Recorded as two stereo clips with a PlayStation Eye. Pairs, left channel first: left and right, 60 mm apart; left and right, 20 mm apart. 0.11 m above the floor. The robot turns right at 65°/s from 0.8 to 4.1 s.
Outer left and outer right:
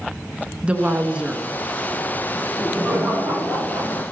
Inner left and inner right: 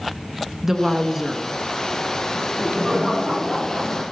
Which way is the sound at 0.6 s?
20° right (ahead or behind).